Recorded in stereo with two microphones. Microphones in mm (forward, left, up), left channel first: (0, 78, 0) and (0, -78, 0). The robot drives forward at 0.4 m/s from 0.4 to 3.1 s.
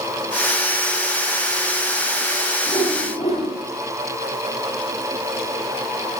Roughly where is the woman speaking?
I don't hear a woman speaking.